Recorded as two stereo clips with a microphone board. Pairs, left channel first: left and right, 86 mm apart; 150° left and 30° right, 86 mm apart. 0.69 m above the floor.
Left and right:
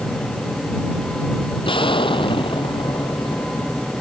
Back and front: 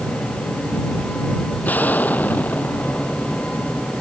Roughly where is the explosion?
Left.